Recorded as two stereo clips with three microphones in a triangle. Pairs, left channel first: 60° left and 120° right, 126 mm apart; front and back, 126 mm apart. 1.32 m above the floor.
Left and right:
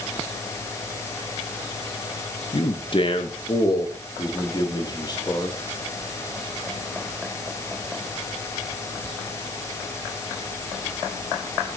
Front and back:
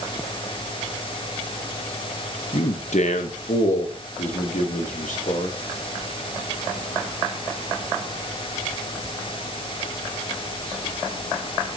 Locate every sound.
2.5 s a man speaking: 20° left, 1.6 m; by 5.5 s straight ahead, 3.5 m